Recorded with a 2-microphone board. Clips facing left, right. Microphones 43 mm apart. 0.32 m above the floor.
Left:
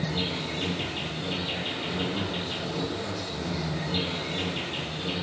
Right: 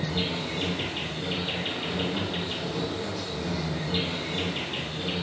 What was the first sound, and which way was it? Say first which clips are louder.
An insect: right 1 dB; 25° right (ahead or behind).